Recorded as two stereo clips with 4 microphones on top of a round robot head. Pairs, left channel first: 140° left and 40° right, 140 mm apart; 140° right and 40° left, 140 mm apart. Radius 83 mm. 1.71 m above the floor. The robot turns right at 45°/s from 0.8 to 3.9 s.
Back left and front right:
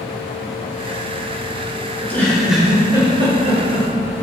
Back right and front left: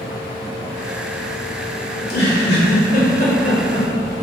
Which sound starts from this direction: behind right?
A giggle, at 1.9 s.